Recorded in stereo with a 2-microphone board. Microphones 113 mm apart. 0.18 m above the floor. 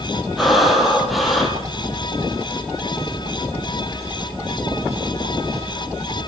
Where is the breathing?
Centre (ahead or behind), 6 m.